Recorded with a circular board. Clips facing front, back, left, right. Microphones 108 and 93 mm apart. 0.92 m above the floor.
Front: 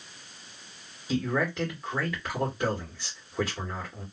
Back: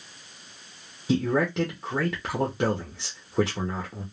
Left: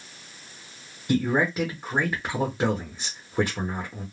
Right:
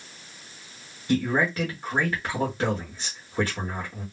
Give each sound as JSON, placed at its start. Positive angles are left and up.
{"t": 1.1, "sound": "a man speaking", "azimuth_deg": 165, "distance_m": 1.0}